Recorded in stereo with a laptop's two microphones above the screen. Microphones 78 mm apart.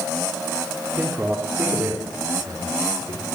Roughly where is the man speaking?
Centre.